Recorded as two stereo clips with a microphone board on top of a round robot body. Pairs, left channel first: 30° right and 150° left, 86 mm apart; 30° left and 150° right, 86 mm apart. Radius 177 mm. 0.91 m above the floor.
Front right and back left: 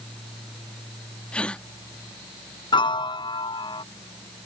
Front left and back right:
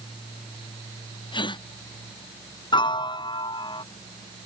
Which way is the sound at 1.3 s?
50° left.